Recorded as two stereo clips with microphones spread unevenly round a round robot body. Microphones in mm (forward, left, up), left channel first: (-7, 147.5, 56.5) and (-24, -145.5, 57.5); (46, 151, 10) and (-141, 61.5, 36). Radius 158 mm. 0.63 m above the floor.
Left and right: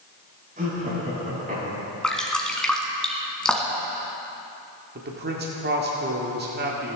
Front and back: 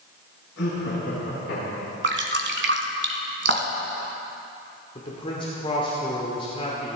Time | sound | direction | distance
0.6 | laughter | 25° right | 6 m
2.0 | dripping | 175° left | 1.8 m
5.0 | a man speaking | 40° right | 1.7 m